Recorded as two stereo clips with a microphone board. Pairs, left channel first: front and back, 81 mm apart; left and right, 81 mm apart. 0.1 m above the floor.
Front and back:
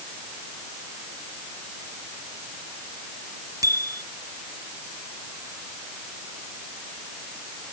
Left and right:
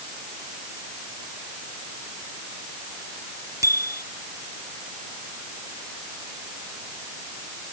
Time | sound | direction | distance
3.6 | a bicycle bell | 140° right | ?